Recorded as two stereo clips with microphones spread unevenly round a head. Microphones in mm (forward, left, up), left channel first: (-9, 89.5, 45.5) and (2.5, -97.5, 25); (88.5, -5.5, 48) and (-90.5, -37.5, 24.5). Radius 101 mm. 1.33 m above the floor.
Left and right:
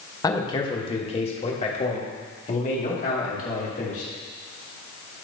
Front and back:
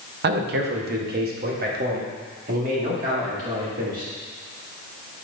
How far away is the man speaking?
About 1.0 m.